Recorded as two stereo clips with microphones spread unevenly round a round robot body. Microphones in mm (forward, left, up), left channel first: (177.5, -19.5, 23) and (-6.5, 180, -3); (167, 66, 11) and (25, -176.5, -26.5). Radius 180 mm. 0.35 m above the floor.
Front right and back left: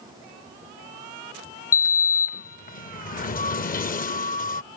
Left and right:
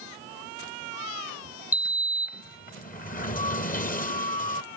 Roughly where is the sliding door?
Ahead.